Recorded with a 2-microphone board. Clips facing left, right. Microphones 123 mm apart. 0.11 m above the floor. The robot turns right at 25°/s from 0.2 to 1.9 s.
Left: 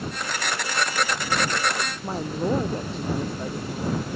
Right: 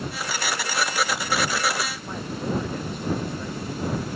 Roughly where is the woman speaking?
Left.